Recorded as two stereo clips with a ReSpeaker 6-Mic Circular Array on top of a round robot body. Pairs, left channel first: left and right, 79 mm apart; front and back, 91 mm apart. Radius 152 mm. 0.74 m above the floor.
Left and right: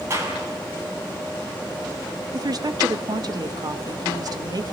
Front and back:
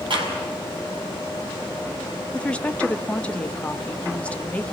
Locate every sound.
0.1 s a clap: 150° right, 6.5 m
2.3 s a woman speaking: 75° right, 1.3 m